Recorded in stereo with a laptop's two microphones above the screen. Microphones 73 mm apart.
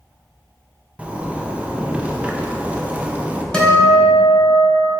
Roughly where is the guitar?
Centre.